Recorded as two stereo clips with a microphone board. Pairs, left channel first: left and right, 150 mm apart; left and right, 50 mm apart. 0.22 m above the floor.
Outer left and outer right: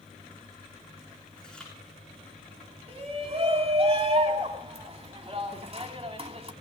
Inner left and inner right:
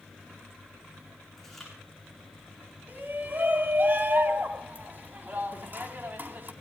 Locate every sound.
1.4 s chewing: 5° left (ahead or behind), 6.5 m
2.9 s a shout: 40° right (ahead or behind), 2 m